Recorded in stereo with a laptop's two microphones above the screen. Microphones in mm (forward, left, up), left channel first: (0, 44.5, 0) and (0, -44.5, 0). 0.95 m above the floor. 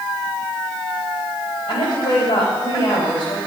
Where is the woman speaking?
70° left (ahead or behind), 4 m.